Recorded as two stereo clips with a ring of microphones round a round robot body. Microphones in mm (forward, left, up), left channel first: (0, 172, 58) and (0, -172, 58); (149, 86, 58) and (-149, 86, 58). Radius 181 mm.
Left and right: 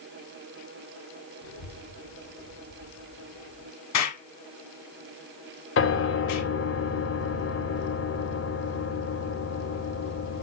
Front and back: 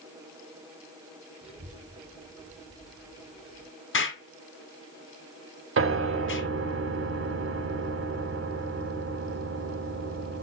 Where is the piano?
140° left, 2 m.